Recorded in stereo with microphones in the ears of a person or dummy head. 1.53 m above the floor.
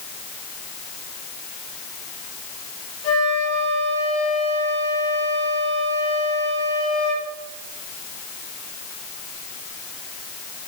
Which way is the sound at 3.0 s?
35° left (ahead or behind).